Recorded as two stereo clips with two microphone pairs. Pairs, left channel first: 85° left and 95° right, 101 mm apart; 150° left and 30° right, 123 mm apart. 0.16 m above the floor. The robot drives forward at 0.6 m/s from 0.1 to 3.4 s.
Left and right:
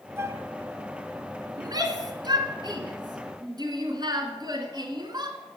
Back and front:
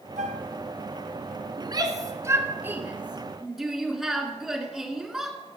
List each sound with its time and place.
0.2 s a flute: 35° right, 0.6 m; by 0.5 s 45° right, 0.5 m
1.6 s a shout: 65° right, 1.6 m; by 5.4 s 120° right, 1.6 m